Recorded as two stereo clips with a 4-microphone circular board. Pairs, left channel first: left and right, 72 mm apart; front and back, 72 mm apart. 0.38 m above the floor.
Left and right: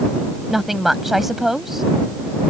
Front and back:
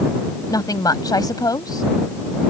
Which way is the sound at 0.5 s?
Straight ahead.